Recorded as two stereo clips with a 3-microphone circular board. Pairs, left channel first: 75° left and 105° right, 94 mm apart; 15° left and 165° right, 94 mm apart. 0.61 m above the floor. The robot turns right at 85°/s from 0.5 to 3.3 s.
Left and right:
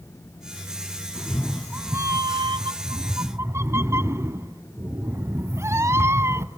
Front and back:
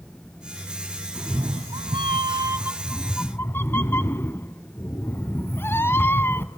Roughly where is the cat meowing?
Behind left.